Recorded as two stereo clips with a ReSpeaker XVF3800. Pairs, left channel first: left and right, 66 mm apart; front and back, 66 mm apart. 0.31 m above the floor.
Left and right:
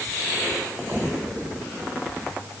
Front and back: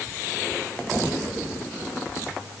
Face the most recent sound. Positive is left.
No sound to turn to.